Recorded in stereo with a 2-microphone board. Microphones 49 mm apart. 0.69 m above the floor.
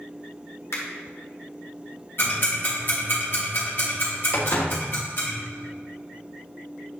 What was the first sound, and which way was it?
A finger snap, 75° left (ahead or behind).